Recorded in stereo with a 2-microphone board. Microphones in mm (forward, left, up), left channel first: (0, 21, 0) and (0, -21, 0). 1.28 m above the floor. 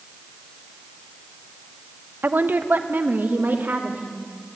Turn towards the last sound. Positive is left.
turn(degrees=-45)  # may be behind; listen again after turning